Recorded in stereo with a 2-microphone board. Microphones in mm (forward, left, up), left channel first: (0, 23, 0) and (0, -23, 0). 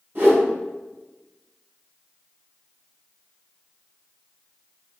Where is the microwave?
I don't hear a microwave.